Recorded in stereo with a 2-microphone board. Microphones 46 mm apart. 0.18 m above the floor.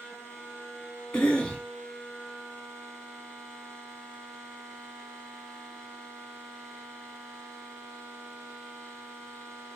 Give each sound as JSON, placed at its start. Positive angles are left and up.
{"t": 1.1, "sound": "a cough", "side_deg": 20, "distance_m": 1.2}